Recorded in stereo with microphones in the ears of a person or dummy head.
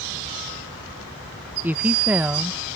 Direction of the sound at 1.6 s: 10° right (ahead or behind).